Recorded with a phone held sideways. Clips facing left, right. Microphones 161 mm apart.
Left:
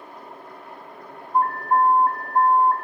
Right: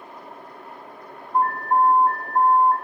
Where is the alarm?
Centre (ahead or behind), 4 m.